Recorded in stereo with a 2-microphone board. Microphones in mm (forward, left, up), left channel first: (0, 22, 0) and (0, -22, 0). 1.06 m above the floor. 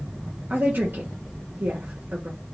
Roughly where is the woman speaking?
Right.